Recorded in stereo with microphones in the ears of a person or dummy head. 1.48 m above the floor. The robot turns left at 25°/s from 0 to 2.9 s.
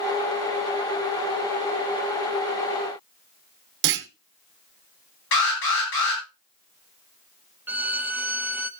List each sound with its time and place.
3.8 s a clunk: 60° right (ahead or behind), 0.9 m
5.3 s an alarm: 85° left, 9 m
7.7 s a violin: 20° right (ahead or behind), 0.6 m